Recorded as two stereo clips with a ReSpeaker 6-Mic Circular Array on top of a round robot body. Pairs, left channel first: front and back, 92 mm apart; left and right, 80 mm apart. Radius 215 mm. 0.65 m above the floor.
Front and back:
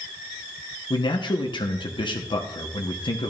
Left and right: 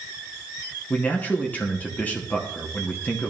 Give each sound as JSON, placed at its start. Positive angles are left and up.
{"t": 0.9, "sound": "a man speaking", "azimuth_deg": 20, "distance_m": 1.5}